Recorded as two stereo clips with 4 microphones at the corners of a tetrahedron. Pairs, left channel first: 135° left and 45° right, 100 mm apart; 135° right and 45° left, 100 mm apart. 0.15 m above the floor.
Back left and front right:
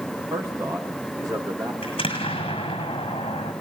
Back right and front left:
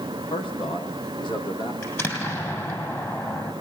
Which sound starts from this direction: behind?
An explosion, at 1.8 s.